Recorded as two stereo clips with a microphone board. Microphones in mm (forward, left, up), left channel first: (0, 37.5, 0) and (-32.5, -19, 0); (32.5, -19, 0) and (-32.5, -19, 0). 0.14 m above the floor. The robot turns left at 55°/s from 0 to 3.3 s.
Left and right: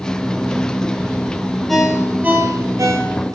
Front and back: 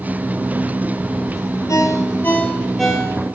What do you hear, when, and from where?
1.7 s a ringtone: 25° right, 1.7 m; by 3.4 s 115° right, 1.7 m